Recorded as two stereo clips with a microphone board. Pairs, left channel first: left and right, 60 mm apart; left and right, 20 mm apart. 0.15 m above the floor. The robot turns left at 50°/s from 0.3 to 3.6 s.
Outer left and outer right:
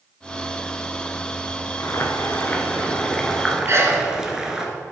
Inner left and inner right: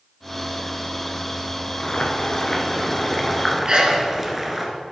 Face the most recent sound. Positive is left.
turn(degrees=-45)  # may be behind; listen again after turning